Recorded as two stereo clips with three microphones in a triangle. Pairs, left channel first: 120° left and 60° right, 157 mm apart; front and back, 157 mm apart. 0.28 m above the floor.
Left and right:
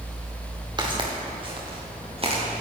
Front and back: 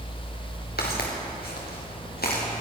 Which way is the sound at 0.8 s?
Straight ahead.